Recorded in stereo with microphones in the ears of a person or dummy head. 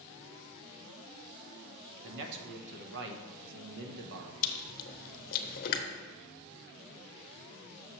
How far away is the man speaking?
About 0.8 m.